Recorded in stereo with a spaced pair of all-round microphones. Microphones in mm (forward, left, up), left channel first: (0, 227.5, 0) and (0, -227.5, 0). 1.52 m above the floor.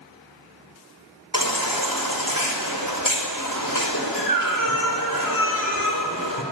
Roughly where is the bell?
I don't hear a bell.